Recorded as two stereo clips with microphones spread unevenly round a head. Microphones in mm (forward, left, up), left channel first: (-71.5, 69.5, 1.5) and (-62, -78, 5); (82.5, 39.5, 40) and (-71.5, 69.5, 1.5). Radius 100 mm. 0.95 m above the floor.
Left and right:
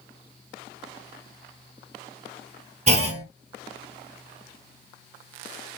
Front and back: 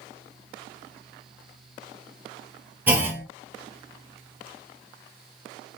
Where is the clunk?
120° right, 0.8 m.